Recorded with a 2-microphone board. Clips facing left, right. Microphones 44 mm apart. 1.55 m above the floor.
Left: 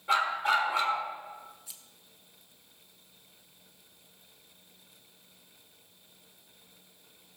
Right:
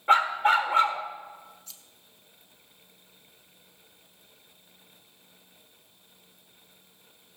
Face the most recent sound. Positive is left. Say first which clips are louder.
# right 1 dB
turn(degrees=15)  # may be behind; listen again after turning